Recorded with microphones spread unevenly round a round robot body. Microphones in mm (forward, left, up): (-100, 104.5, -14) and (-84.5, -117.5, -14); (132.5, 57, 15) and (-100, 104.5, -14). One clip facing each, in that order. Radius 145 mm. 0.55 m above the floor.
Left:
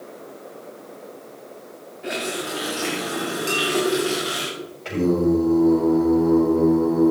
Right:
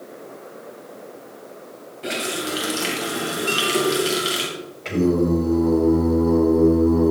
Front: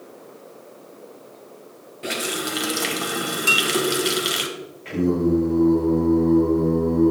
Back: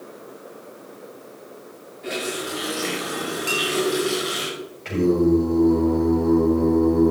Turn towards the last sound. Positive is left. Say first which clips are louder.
# right 1 dB, back 2 dB
turn(degrees=-150)